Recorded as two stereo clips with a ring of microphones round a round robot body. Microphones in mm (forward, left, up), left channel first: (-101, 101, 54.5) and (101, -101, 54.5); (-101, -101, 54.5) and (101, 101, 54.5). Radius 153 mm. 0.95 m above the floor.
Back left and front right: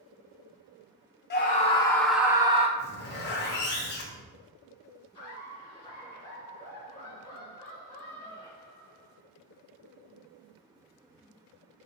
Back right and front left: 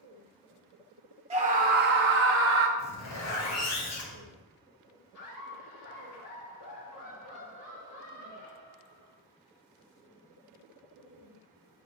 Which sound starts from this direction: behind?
A zipper, at 2.8 s.